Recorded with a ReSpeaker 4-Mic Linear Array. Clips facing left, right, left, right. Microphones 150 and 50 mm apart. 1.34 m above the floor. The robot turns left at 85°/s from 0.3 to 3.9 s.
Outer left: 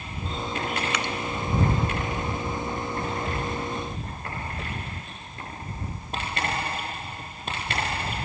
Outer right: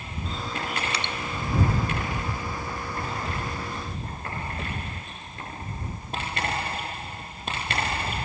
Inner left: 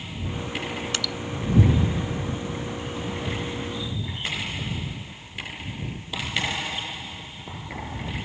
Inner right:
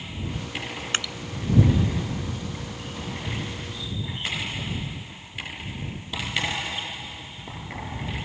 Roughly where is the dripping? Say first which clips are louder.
Outer left 3 dB, inner right 1 dB; right.